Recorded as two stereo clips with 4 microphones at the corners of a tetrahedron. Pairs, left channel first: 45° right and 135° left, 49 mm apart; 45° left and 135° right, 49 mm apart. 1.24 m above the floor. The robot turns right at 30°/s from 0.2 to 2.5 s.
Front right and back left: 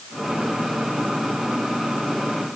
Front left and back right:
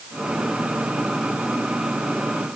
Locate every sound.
Only background noise.